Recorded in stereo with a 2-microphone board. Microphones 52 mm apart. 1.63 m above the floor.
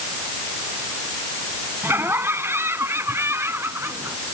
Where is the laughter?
50° right (ahead or behind); by 4.2 s 55° right (ahead or behind).